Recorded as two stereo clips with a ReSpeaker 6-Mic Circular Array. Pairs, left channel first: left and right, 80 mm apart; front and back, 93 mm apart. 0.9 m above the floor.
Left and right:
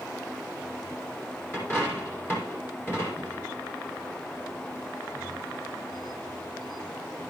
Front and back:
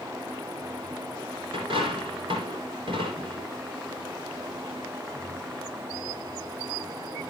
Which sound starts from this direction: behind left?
A dropped coin, at 1.5 s.